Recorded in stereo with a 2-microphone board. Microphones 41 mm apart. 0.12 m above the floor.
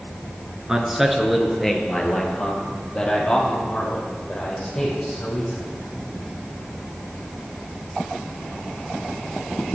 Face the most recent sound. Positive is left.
turn(degrees=20)  # may be behind; listen again after turning